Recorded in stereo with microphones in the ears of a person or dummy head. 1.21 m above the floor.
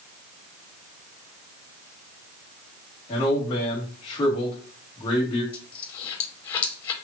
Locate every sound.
3.1 s a man speaking: 25° left (ahead or behind), 1.9 m
5.5 s a dropped coin: 25° left (ahead or behind), 0.7 m